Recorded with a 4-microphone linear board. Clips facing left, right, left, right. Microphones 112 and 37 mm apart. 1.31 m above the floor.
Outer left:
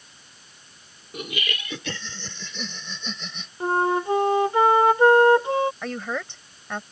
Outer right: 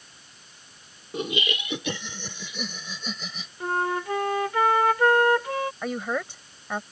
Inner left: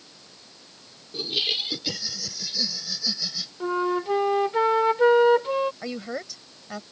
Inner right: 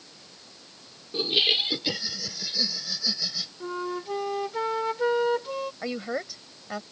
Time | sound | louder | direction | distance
1.1 | laughter | outer right 4 dB, inner right 4 dB | 30° right (ahead or behind) | ?
3.6 | a flute | outer left 5 dB, inner left 8 dB | 25° left (ahead or behind) | ?
5.8 | a woman speaking | outer right 1 dB, inner right 1 dB | 10° right (ahead or behind) | ?